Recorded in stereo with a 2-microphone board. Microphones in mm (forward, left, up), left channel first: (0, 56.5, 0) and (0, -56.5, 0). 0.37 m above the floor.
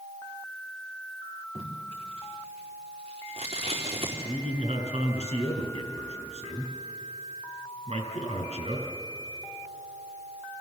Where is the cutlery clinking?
I don't hear cutlery clinking.